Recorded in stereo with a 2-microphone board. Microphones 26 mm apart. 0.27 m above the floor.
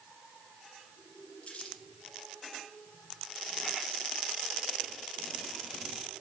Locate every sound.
1.4 s crumpling: 40° left (ahead or behind), 7.5 m